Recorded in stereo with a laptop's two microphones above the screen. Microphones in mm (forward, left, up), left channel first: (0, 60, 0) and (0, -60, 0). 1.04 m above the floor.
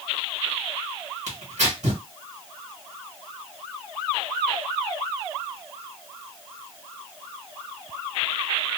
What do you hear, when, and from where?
1.3 s tearing paper: 75° right (ahead or behind), 1.4 m